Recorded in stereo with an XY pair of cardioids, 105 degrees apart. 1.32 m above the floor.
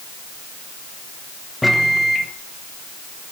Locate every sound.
1.6 s a microwave: 15° left, 0.7 m